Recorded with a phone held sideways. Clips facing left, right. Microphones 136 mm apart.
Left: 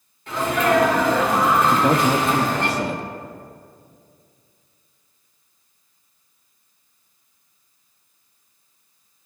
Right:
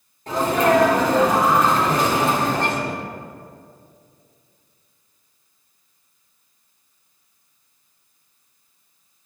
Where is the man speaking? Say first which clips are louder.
Left 2 dB; 70° left (ahead or behind), 1.4 m.